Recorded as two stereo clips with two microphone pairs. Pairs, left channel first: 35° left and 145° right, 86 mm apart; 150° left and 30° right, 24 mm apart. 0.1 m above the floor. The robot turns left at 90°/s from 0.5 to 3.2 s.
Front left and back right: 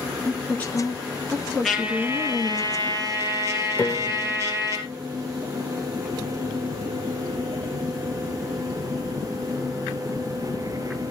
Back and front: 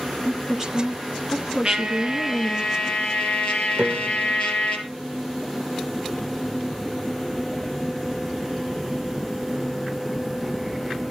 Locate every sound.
0.2 s a woman speaking: 5° left, 1.5 m; by 2.6 s 170° left, 1.5 m
1.6 s a trumpet: 50° right, 2.5 m; by 4.8 s 170° left, 2.5 m
3.8 s a piano: 25° right, 0.9 m